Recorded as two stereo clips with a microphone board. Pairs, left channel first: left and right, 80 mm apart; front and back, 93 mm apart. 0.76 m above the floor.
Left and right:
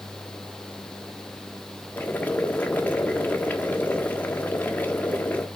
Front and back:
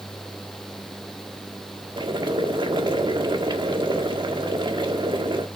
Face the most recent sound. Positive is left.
turn(degrees=155)